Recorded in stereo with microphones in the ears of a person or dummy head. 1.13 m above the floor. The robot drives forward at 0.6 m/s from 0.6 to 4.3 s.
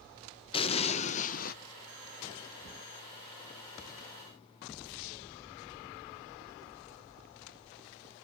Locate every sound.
0.5 s an explosion: 30° left (ahead or behind), 1.1 m; by 1.6 s 45° left (ahead or behind), 0.8 m